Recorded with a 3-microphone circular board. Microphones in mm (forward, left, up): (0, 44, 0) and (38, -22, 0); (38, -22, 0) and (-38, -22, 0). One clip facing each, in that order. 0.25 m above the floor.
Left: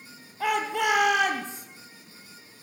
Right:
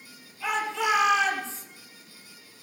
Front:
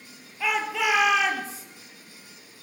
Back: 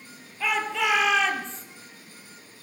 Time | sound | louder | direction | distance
0.4 | a shout | left 2 dB, even | 85° left | 5.5 m